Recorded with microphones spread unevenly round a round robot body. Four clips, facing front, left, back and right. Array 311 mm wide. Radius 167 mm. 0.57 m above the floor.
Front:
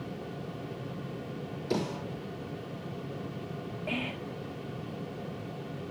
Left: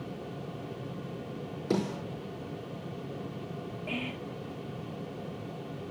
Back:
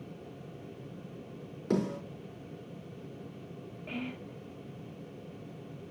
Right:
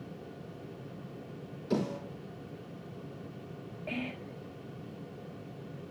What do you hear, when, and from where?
1.7 s a snare drum: 115° left, 5 m
3.9 s whispering: 5° right, 1.2 m